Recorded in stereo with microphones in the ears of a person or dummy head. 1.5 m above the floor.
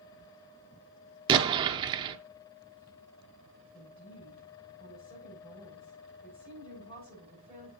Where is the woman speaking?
25° left (ahead or behind), 6 m.